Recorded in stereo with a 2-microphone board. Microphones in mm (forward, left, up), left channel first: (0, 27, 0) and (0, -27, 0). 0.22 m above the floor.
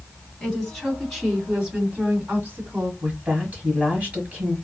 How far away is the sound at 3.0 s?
About 1.2 m.